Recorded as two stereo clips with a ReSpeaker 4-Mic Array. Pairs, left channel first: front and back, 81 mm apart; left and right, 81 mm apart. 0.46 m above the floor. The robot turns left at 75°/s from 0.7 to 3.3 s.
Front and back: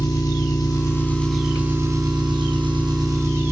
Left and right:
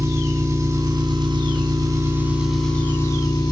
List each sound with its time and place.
0.0 s an engine running: 40° right, 3 m; by 3.5 s 125° left, 3 m